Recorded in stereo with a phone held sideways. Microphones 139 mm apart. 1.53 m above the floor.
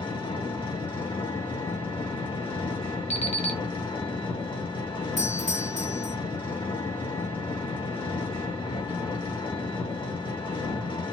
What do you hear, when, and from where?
0.0 s an engine running: 35° left (ahead or behind), 1.5 m
3.1 s an alarm clock: 50° left (ahead or behind), 0.9 m
5.2 s a doorbell: 60° left (ahead or behind), 0.7 m